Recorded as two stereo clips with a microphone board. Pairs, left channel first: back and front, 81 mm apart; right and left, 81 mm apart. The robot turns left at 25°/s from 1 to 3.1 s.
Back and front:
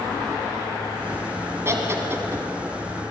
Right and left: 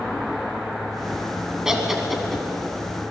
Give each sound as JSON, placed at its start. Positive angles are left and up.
{"t": 1.6, "sound": "laughter", "azimuth_deg": 15, "distance_m": 1.6}